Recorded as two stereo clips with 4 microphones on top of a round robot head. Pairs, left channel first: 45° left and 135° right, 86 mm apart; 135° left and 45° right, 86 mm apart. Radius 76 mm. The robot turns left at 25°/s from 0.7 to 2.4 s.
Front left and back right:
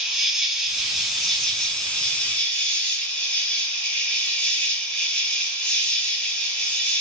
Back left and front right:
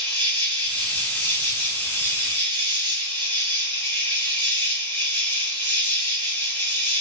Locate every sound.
0.0 s an insect: 155° left, 1.5 m; by 7.0 s 110° left, 1.5 m